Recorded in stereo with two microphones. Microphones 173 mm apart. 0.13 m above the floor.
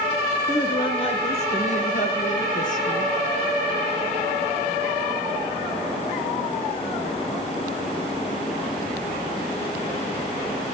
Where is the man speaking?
20° left (ahead or behind), 1.2 m; by 3.1 s 50° left (ahead or behind), 2.5 m.